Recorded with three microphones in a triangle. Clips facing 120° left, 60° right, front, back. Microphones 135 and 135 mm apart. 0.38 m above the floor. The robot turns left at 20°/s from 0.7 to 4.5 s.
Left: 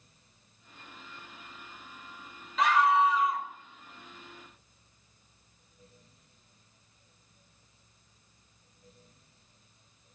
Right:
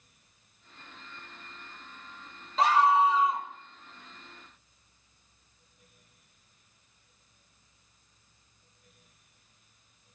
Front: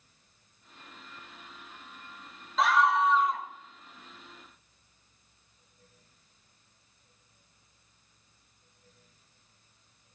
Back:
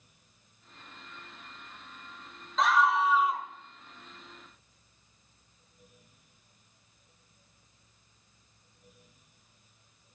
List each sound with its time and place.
2.6 s a scream: 85° right, 0.9 m; by 3.5 s 105° right, 0.9 m